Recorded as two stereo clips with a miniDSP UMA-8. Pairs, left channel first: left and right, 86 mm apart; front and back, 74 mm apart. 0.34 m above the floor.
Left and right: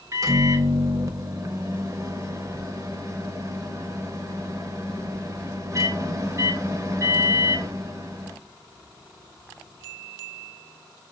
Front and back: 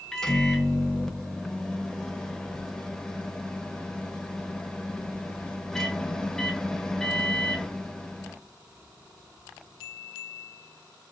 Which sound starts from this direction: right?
A microwave, at 0.1 s.